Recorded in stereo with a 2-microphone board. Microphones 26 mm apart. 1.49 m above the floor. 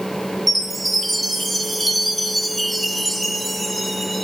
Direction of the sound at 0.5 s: 5° right (ahead or behind).